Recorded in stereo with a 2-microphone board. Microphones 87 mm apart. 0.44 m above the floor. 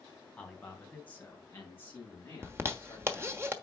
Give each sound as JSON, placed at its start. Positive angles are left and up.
{"t": 0.4, "sound": "a man speaking", "side_deg": 10, "distance_m": 3.0}
{"t": 2.4, "sound": "a zipper", "side_deg": -30, "distance_m": 1.1}